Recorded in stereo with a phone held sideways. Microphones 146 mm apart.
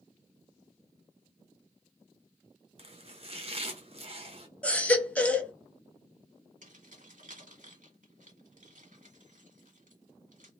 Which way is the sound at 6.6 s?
60° right (ahead or behind).